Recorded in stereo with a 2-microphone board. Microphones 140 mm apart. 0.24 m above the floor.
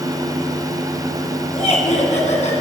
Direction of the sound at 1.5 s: 50° left (ahead or behind).